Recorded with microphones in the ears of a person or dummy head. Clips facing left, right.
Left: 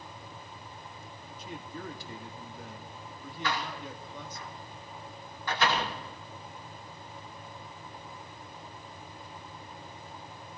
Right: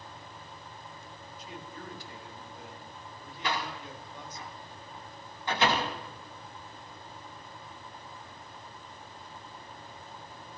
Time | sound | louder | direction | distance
1.4 | a man speaking | left 4 dB | 85° left | 2.5 m
3.4 | a door slam | even | 20° right (ahead or behind) | 2.5 m